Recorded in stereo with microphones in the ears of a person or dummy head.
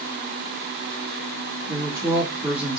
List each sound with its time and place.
1.7 s a woman speaking: 15° right (ahead or behind), 2.5 m